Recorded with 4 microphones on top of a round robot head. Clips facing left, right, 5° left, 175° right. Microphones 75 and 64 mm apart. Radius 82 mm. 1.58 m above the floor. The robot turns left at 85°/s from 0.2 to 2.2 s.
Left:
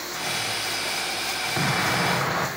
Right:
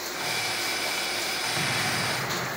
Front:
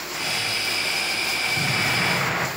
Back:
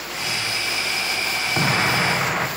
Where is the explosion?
160° left, 1.8 m; by 2.5 s 105° left, 1.8 m.